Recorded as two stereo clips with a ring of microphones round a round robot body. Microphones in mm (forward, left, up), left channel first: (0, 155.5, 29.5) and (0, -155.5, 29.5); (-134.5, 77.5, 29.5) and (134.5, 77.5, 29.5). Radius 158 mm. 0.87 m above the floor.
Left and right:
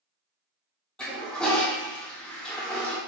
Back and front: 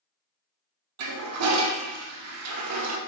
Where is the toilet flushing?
5° left, 0.6 m.